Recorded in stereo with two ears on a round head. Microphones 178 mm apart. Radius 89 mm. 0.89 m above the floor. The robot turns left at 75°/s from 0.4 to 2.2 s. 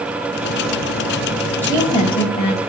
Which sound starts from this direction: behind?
A woman speaking, at 1.6 s.